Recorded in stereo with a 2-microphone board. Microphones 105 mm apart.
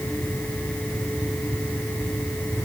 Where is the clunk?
No clunk in this recording.